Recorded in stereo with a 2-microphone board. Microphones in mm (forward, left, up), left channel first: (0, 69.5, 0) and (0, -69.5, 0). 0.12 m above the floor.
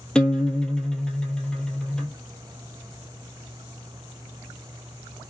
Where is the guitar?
5° left (ahead or behind), 0.5 m.